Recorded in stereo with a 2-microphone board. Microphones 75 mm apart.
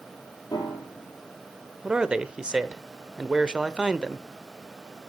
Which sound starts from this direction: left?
A piano, at 0.5 s.